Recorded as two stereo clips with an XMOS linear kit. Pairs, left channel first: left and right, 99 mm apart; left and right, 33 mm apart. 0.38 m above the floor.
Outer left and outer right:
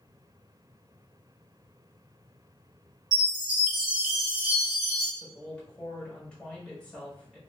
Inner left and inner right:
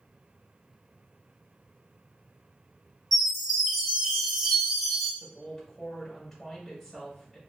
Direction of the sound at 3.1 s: 5° right (ahead or behind).